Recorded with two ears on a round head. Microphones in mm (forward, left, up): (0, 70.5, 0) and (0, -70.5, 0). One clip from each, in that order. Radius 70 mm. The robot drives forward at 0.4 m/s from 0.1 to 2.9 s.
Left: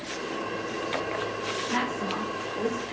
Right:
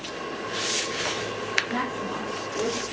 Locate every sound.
1.7 s a woman speaking: 40° left (ahead or behind), 3 m; by 2.8 s 35° left (ahead or behind), 3.5 m